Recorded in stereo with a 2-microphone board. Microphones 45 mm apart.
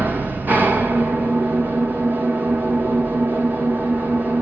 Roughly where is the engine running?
Right.